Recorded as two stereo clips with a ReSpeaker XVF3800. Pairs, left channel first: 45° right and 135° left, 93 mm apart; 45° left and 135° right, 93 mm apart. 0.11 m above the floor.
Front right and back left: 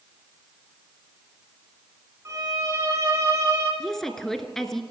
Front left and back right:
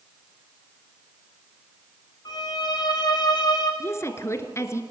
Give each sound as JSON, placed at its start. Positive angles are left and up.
{"t": 2.2, "sound": "a violin", "azimuth_deg": 80, "distance_m": 5.5}
{"t": 3.8, "sound": "a woman speaking", "azimuth_deg": 35, "distance_m": 1.4}